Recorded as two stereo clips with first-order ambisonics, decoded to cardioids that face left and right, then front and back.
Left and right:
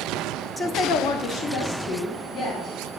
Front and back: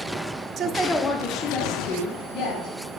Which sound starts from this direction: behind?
A woman speaking, at 0.6 s.